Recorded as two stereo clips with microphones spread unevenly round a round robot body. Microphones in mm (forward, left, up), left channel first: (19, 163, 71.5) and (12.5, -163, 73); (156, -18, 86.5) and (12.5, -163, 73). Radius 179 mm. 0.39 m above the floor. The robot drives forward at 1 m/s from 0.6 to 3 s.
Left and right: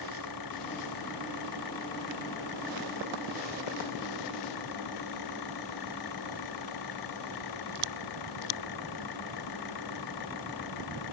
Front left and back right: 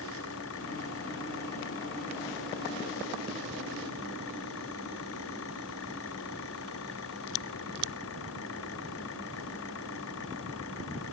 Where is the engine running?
65° left; by 11.1 s 75° left.